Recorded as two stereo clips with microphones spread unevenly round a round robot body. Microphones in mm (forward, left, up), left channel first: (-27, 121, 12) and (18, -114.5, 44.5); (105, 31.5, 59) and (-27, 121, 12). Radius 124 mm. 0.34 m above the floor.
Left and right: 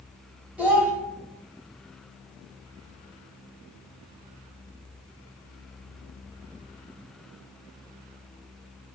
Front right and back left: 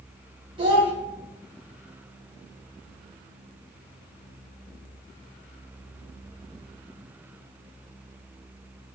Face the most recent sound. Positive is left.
turn(degrees=-170)